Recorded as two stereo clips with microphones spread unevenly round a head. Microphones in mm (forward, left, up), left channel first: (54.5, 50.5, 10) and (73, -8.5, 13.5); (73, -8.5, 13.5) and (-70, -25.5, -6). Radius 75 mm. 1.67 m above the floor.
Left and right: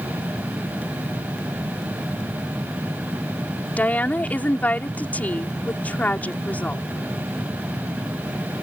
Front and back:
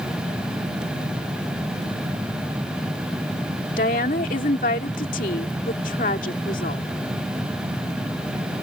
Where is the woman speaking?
45° left.